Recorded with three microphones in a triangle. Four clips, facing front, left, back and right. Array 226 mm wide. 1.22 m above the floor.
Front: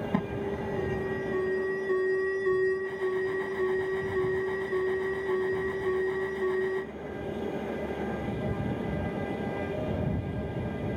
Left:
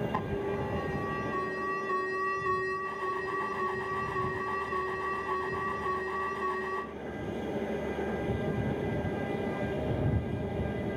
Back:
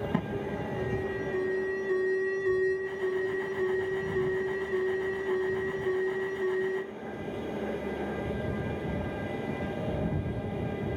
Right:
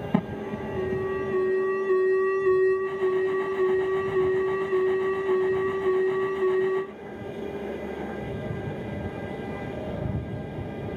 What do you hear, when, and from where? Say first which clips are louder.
0.1 s an alarm: right 4 dB, front 1 dB; 90° right